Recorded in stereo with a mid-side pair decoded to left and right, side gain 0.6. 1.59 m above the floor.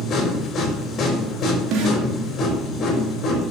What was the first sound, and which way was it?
A machine running, 45° left.